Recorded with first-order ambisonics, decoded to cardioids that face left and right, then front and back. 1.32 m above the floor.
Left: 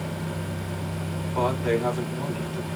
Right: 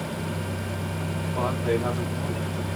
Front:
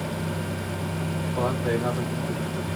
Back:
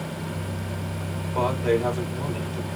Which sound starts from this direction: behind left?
A man speaking, at 1.3 s.